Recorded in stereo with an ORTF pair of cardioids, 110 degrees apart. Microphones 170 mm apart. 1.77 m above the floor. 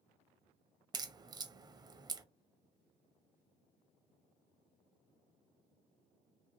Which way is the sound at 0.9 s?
25° right.